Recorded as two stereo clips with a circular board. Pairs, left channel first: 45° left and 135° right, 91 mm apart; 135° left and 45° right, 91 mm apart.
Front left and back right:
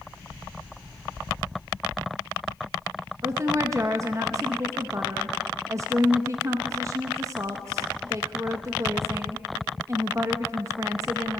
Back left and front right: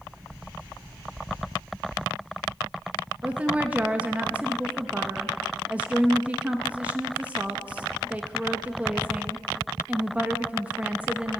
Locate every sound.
3.2 s a woman speaking: 110° right, 0.7 m